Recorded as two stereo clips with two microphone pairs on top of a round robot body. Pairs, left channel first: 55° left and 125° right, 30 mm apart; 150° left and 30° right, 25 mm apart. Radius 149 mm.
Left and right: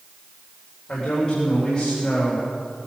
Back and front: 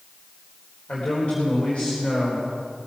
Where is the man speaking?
115° left, 4 m.